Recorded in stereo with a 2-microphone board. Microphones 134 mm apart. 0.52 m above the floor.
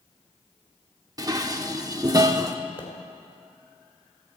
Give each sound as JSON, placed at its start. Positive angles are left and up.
{"t": 1.2, "sound": "dishes clattering", "side_deg": -30, "distance_m": 0.7}
{"t": 2.8, "sound": "a pop", "side_deg": 40, "distance_m": 2.5}